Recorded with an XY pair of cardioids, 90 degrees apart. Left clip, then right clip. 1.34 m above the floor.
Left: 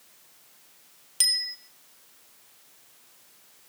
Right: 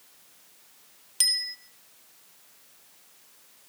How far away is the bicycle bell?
About 2 m.